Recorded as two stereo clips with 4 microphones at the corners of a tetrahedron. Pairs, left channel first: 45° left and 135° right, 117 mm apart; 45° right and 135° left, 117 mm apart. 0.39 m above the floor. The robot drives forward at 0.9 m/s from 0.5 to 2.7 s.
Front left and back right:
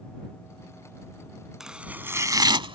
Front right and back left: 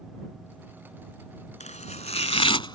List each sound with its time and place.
1.6 s chopping: 50° right; by 2.8 s 95° right